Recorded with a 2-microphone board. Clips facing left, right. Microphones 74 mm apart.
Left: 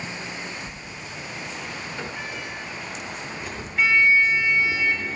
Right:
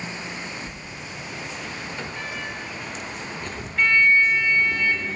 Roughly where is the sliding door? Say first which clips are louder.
Right 1 dB; centre.